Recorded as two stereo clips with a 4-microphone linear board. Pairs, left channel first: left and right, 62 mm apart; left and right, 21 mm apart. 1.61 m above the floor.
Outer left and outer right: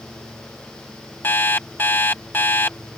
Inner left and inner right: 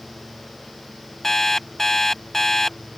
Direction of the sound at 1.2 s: 35° left (ahead or behind).